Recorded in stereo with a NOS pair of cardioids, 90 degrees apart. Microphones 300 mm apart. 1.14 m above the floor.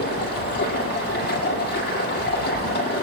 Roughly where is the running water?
Ahead left.